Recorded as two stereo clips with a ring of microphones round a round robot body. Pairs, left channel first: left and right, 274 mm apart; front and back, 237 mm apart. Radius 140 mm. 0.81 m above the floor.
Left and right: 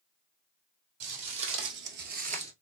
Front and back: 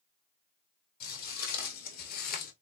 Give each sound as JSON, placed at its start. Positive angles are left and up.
{"t": 1.0, "sound": "footsteps", "azimuth_deg": -55, "distance_m": 1.6}